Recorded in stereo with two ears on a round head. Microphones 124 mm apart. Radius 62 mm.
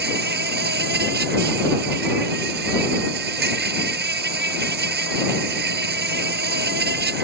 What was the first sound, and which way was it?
An insect, 80° right.